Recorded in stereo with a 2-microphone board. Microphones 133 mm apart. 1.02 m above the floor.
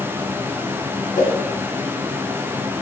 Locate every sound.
1.1 s a whoosh: 80° left, 2.5 m